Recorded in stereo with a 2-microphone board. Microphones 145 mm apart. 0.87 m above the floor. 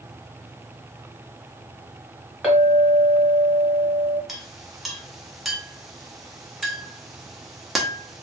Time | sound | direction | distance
2.4 | a clink | 10° right (ahead or behind) | 1.0 m
4.3 | a clink | centre (ahead or behind) | 0.6 m